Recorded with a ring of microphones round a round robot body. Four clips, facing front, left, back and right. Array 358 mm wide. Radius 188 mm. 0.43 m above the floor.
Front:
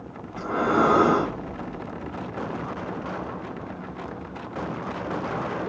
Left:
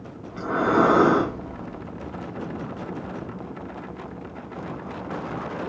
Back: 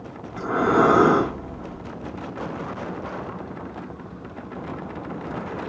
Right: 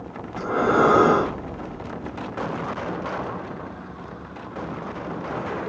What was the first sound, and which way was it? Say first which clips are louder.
Breathing: right 1 dB, back 3 dB; 135° left.